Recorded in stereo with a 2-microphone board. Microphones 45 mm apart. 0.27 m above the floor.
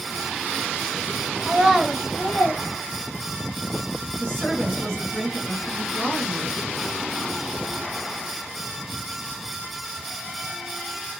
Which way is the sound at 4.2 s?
10° left (ahead or behind).